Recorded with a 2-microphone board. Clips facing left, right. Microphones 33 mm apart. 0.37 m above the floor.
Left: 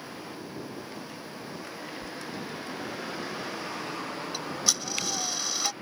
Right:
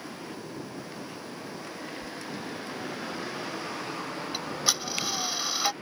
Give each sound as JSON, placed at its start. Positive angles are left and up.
{"t": 2.0, "sound": "a sliding door", "side_deg": 70}
{"t": 4.3, "sound": "ticking", "side_deg": -25}